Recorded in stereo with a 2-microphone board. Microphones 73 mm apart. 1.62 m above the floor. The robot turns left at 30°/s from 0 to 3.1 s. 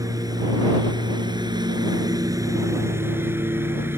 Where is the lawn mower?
55° right; by 4.0 s 145° right.